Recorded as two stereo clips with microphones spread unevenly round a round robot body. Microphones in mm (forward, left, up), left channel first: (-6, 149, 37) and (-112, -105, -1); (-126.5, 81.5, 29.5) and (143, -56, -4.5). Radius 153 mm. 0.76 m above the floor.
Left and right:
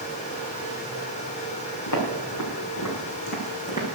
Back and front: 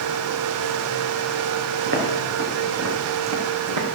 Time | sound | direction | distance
1.9 | footsteps | 30° left | 4 m